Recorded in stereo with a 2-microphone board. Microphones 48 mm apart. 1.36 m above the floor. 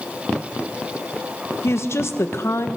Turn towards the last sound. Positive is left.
turn(degrees=65)  # may be behind; listen again after turning